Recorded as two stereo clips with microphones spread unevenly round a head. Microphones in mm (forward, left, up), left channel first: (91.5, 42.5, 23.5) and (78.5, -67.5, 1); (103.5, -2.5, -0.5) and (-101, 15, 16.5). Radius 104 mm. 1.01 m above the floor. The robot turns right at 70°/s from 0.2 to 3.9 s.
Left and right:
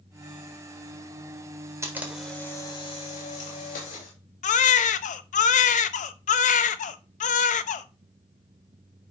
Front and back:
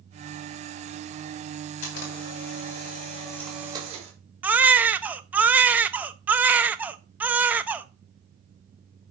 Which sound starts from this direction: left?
A baby crying, at 4.4 s.